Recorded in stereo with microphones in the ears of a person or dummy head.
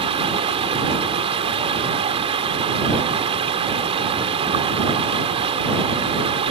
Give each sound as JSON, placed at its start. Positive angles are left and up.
{"t": 0.0, "sound": "running water", "side_deg": -35}